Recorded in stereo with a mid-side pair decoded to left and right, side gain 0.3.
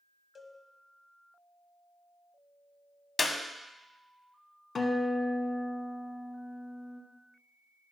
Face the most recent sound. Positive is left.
turn(degrees=65)